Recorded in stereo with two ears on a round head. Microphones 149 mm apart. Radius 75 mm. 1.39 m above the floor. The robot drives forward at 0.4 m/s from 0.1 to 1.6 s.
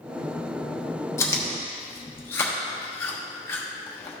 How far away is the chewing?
About 0.9 m.